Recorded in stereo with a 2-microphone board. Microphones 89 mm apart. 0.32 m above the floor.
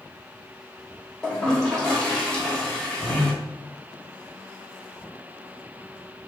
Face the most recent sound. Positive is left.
turn(degrees=10)  # may be behind; listen again after turning